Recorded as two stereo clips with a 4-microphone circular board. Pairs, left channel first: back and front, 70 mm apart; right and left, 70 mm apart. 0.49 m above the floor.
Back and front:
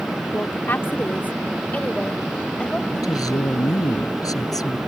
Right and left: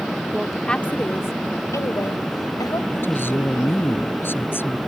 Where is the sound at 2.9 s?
150° right.